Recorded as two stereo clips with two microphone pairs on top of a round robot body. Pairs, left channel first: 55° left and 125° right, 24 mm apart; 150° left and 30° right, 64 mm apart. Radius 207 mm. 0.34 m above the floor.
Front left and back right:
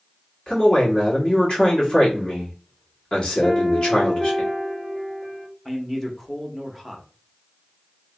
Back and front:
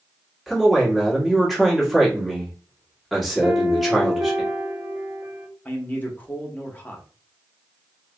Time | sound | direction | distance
0.5 | a man speaking | 55° left | 1.8 m
3.4 | a piano | 35° left | 1.3 m
5.7 | a man speaking | 120° left | 1.1 m